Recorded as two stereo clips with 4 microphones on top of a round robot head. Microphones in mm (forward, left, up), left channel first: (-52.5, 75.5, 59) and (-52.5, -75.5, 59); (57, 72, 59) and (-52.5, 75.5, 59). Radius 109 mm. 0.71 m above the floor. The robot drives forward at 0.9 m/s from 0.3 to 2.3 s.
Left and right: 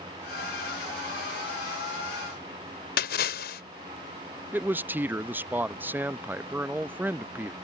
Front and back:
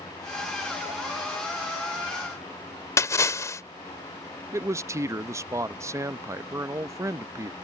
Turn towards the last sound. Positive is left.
turn(degrees=-155)